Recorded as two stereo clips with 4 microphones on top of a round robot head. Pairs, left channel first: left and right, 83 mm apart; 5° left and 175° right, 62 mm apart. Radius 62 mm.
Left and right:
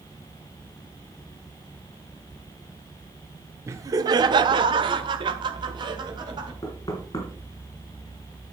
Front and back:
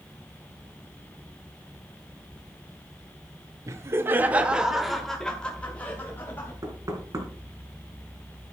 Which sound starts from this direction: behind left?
Knocking, at 6.6 s.